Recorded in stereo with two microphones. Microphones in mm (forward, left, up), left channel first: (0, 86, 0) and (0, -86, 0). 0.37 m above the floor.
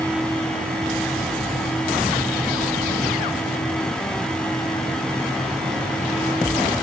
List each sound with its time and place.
Only background noise.